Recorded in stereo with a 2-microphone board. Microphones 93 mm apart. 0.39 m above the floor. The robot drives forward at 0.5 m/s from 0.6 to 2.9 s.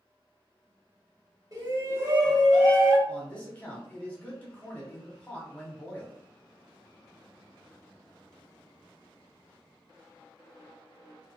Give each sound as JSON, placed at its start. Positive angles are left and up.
{"t": 1.5, "sound": "a shout", "side_deg": -40, "distance_m": 1.1}
{"t": 3.1, "sound": "a man speaking", "side_deg": 15, "distance_m": 1.1}